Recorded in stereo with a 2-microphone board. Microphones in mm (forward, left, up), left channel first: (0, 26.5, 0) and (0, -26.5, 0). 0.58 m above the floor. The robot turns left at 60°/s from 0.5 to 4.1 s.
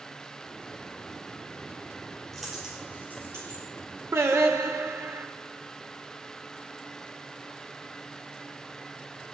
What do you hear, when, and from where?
2.3 s a dropped coin: 5° left (ahead or behind), 5.5 m; by 3.6 s 70° right (ahead or behind), 5.5 m
4.1 s singing: 60° right (ahead or behind), 1.3 m